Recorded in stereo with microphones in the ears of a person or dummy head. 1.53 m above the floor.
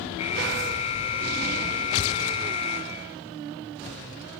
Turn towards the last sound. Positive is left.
turn(degrees=30)  # may be behind; listen again after turning